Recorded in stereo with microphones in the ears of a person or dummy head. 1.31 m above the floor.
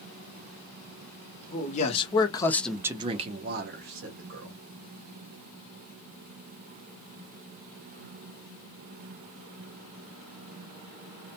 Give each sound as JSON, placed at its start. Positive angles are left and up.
{"t": 1.5, "sound": "a man speaking", "side_deg": 40, "distance_m": 0.9}